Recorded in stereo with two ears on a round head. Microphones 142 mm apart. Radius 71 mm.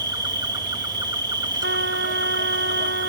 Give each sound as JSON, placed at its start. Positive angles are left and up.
{"t": 0.0, "sound": "an insect", "side_deg": -25}
{"t": 1.6, "sound": "a trumpet", "side_deg": -80}